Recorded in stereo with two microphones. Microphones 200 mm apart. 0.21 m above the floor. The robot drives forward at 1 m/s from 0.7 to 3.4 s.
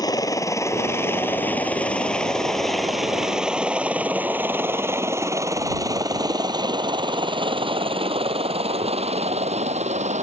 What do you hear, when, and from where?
0.0 s a helicopter: 20° left (ahead or behind); by 10.2 s 35° right (ahead or behind)